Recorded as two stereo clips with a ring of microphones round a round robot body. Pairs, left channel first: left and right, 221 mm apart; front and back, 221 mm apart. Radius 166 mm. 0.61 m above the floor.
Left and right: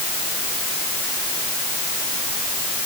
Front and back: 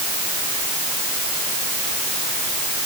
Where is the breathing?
No breathing in this recording.